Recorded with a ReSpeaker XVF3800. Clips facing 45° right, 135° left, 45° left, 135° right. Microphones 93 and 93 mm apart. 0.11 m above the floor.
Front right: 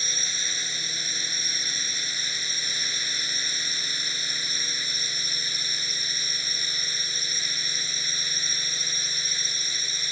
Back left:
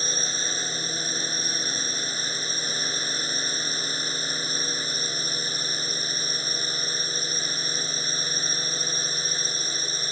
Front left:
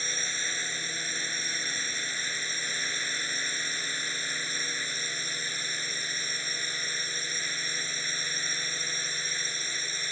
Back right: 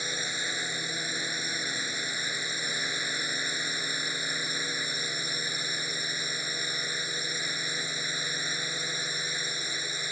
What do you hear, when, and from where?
0.0 s a drone: 155° left